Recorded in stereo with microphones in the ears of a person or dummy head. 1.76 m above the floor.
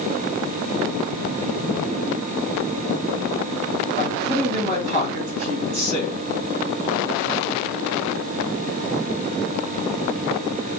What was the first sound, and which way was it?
A man speaking, 40° right (ahead or behind).